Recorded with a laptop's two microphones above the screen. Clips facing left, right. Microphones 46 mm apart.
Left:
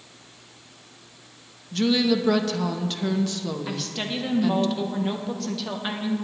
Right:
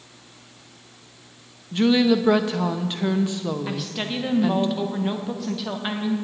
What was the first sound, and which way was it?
A woman speaking, 20° right (ahead or behind).